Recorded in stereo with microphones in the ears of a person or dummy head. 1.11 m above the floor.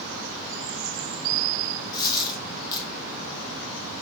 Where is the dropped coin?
20° left (ahead or behind), 0.8 m.